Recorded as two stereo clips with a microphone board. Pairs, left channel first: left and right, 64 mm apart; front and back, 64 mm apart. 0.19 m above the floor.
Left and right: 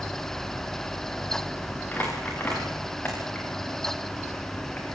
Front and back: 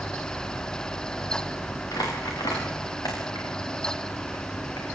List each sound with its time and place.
1.9 s crumpling: 25° left, 8.5 m